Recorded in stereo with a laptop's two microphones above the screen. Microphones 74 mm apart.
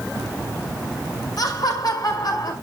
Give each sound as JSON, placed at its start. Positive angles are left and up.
{"t": 1.4, "sound": "laughter", "side_deg": 55, "distance_m": 5.0}